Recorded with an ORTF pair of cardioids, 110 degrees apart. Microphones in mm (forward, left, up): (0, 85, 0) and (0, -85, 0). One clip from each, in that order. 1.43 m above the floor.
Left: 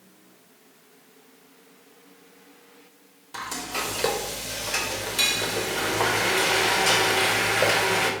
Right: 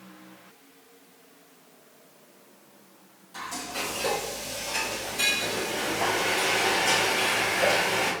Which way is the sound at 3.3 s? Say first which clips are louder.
Left 3 dB; 65° left.